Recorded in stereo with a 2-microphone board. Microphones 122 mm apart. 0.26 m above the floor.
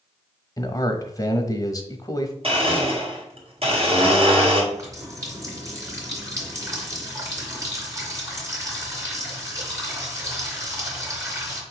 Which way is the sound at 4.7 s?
25° right (ahead or behind).